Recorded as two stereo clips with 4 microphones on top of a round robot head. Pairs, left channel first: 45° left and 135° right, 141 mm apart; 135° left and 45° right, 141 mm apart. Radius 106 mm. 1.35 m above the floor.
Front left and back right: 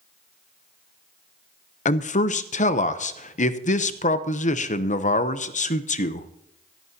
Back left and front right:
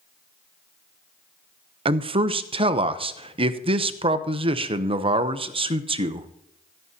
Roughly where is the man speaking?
Ahead.